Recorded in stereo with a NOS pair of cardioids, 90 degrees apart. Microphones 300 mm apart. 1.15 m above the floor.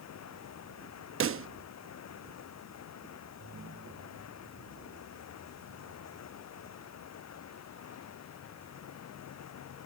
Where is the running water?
60° left.